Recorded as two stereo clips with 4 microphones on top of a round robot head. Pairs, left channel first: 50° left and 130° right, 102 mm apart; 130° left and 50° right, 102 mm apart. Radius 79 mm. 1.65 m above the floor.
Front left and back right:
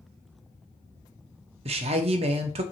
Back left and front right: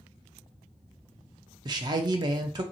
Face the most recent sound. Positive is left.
turn(degrees=-100)